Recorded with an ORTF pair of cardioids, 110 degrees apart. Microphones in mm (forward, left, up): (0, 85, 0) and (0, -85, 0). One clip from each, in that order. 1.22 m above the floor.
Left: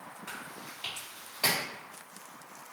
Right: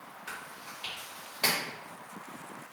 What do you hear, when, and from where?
0.3 s chewing: straight ahead, 1.6 m